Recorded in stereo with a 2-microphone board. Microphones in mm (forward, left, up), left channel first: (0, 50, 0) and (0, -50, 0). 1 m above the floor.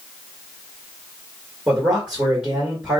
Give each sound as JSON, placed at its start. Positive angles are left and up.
{"t": 1.7, "sound": "a man speaking", "side_deg": -10, "distance_m": 1.5}